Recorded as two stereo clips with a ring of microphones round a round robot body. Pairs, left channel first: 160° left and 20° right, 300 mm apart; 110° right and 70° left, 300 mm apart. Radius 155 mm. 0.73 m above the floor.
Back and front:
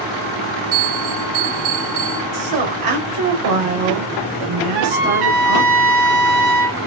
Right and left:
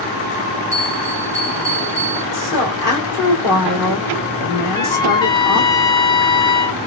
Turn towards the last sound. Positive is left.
turn(degrees=-35)